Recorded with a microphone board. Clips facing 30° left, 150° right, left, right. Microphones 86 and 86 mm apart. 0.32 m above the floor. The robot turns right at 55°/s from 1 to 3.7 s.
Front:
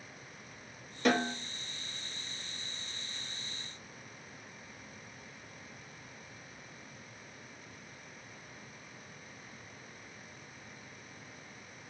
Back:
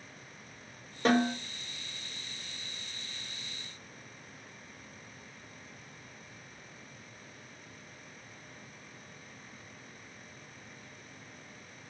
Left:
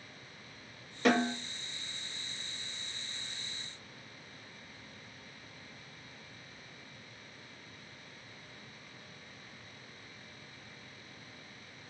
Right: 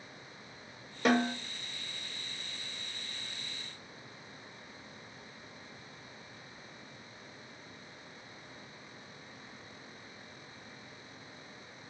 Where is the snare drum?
160° right, 1.5 m; by 1.4 s 145° right, 1.5 m.